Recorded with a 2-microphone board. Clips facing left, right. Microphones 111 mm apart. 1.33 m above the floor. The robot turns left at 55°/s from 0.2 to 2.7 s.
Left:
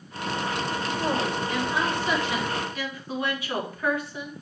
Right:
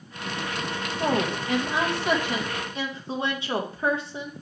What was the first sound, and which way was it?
A woman speaking, 60° right.